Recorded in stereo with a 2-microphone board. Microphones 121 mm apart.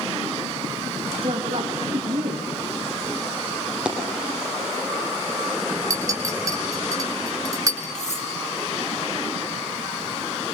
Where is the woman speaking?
55° right (ahead or behind), 3.5 m.